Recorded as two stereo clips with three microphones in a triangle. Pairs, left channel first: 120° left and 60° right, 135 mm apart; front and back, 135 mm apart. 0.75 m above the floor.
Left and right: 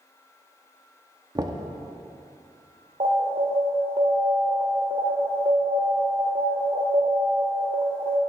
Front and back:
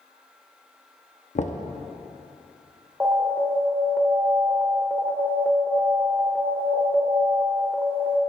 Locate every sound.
1.4 s knocking: 5° right, 0.8 m
3.0 s an alarm: 105° right, 1.5 m